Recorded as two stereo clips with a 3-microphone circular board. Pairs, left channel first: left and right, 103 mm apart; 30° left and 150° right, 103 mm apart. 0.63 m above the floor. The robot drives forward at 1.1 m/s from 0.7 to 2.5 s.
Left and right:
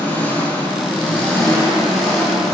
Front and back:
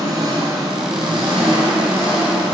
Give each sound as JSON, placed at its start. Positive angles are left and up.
{"t": 0.0, "sound": "an engine running", "azimuth_deg": 165, "distance_m": 1.5}